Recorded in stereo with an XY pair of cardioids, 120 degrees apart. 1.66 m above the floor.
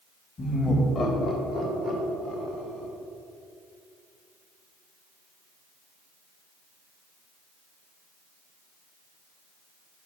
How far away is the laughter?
About 2 m.